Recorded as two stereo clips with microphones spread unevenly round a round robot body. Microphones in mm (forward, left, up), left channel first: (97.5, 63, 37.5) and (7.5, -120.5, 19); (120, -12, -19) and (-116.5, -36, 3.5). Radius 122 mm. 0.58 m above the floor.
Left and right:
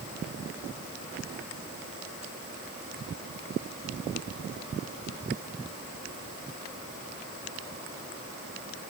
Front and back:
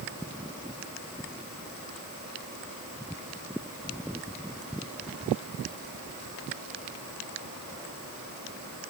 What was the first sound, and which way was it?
Only background noise.